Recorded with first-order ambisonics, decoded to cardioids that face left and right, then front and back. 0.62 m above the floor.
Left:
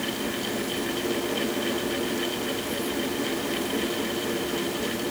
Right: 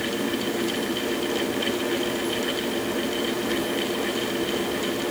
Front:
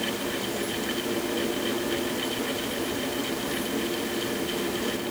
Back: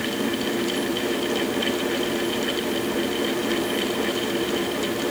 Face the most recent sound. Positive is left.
No sound to turn to.